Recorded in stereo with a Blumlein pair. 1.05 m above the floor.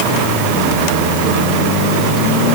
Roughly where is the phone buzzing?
No phone buzzing in this recording.